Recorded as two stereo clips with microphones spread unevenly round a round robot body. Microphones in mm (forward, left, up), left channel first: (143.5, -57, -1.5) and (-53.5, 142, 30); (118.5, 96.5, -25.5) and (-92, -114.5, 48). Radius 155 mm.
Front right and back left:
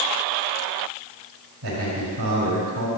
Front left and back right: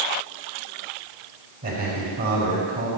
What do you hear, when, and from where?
1.6 s a man speaking: 170° left, 5 m